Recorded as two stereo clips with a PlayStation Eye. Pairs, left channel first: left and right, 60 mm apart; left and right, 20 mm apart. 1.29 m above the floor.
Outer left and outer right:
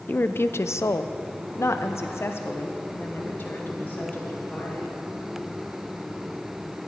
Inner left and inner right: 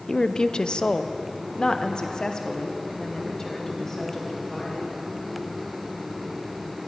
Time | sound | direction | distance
0.1 | a woman speaking | 30° left (ahead or behind) | 0.7 m